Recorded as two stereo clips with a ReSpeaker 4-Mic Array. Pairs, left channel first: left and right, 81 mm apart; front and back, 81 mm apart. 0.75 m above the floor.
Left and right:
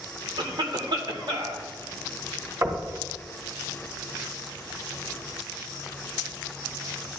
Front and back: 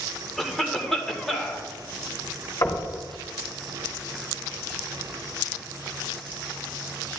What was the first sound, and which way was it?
A cough, 85° right.